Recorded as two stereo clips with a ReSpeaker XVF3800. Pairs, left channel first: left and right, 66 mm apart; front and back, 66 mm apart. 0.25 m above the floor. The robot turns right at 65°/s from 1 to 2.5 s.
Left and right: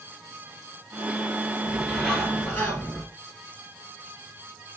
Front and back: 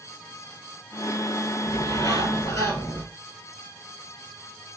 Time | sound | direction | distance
1.7 | a bird | 25° right | 2.5 m